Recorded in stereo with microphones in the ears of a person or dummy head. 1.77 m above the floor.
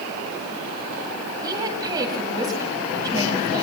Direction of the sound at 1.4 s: 20° right (ahead or behind).